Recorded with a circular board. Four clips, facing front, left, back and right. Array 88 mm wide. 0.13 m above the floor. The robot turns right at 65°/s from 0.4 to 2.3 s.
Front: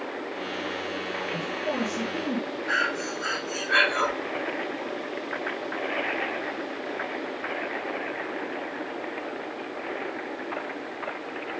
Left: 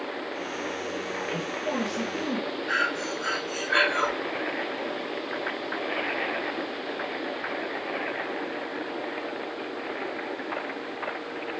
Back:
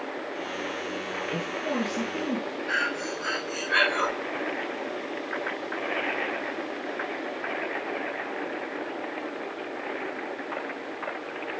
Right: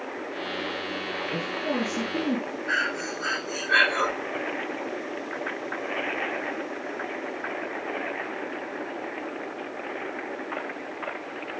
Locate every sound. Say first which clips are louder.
1.3 s a woman speaking: right 2 dB, back 1 dB; 135° right, 3 m; by 2.6 s 75° right, 3 m
2.7 s breathing: even, front 2 dB; 45° right, 4 m